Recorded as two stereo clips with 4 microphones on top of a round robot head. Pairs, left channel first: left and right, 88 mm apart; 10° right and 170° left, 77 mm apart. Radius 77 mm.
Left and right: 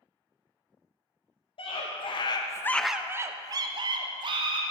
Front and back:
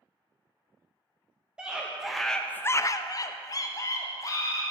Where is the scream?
95° left, 1.1 m; by 4.6 s 60° right, 1.7 m.